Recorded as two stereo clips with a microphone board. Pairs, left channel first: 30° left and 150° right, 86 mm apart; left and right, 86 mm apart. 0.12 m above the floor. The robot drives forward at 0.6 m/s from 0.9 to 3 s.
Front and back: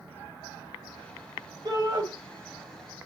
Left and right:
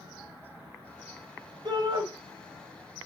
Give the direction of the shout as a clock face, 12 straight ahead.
4 o'clock.